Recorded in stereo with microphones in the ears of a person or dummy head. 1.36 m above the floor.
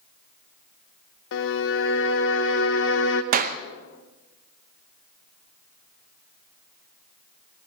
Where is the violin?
70° left (ahead or behind), 0.8 m.